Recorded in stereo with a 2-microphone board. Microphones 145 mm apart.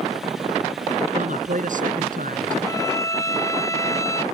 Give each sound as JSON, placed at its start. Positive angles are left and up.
{"t": 1.1, "sound": "a man speaking", "side_deg": -60}
{"t": 2.6, "sound": "a violin", "side_deg": 20}